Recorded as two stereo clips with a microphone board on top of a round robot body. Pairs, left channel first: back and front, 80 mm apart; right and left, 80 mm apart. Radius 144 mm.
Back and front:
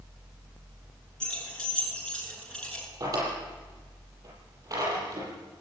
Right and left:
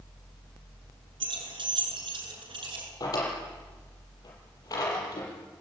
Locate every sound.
1.2 s keys jangling: 100° left, 8 m
3.0 s a drawer: 45° right, 7.5 m